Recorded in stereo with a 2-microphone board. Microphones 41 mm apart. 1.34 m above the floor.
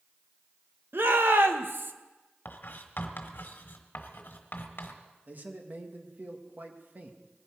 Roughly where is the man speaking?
Right.